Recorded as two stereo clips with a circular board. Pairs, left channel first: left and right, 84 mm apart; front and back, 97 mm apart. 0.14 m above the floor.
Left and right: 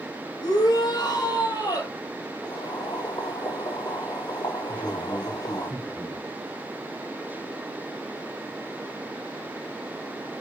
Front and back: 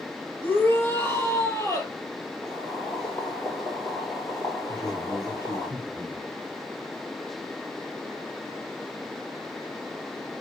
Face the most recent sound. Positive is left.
turn(degrees=45)